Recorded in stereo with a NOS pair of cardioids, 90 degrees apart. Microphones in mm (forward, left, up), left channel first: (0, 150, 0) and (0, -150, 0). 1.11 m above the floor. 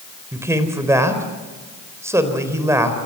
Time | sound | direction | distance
0.3 | a man speaking | 10° right | 4 m